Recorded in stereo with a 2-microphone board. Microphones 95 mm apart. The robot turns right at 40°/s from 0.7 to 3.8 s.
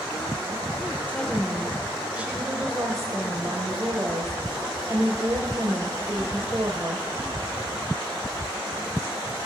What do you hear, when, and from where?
1.1 s a woman speaking: 155° left, 1.1 m; by 7.1 s 95° right, 1.1 m